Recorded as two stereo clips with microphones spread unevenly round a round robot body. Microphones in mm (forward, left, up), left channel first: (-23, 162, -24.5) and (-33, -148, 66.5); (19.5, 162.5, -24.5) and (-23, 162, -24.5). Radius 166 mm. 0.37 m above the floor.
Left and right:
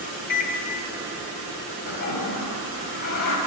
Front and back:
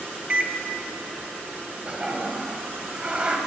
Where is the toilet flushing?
125° left, 2.5 m.